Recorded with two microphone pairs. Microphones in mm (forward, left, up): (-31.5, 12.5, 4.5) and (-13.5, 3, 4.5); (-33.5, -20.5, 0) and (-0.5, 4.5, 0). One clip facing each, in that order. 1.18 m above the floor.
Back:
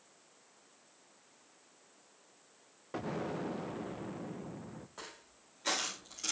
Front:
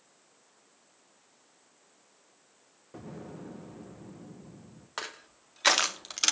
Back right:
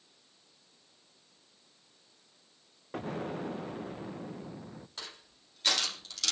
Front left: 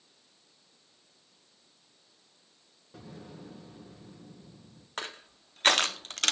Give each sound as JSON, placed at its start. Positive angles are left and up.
{"t": 2.9, "sound": "an explosion", "azimuth_deg": -165, "distance_m": 1.2}
{"t": 5.0, "sound": "crushing", "azimuth_deg": -5, "distance_m": 2.0}